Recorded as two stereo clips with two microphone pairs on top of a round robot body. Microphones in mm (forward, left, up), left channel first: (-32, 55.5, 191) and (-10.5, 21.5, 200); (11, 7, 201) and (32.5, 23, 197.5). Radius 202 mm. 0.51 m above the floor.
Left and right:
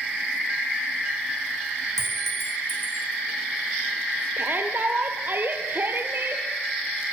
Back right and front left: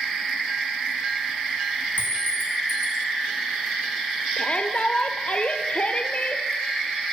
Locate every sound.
2.0 s a clink: 155° right, 4.5 m
4.4 s a shout: 100° right, 2 m